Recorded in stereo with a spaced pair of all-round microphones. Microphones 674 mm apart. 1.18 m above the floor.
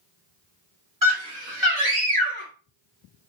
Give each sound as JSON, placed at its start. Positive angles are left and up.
{"t": 1.0, "sound": "a scream", "side_deg": -25, "distance_m": 2.5}